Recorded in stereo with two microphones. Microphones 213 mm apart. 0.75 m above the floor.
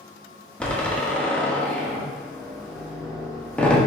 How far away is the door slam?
About 0.6 m.